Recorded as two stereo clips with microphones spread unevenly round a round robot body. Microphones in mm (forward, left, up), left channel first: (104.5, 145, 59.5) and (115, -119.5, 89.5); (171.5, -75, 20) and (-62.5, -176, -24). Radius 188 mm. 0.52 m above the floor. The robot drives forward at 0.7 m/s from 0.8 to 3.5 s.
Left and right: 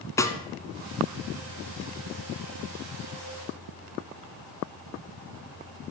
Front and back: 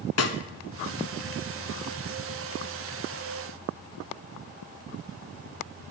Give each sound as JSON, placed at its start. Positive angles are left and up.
{"t": 0.2, "sound": "a snare drum", "azimuth_deg": 10, "distance_m": 1.0}